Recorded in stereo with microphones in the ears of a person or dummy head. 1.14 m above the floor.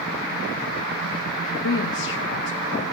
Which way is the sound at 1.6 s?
65° left (ahead or behind).